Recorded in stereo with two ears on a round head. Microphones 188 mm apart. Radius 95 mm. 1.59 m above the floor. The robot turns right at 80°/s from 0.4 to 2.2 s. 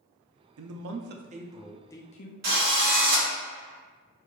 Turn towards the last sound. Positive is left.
turn(degrees=-45)  # may be behind; listen again after turning